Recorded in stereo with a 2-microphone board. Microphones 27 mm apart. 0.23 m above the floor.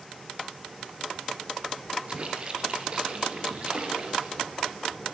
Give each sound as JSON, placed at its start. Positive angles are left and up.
{"t": 2.1, "sound": "a splash", "side_deg": -35, "distance_m": 4.5}